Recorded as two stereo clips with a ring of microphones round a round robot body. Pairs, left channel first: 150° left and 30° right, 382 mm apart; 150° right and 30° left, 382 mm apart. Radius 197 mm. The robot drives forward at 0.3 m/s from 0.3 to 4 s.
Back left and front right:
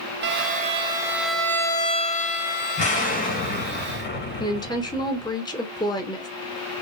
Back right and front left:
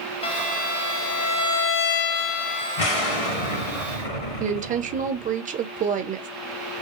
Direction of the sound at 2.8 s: 135° right.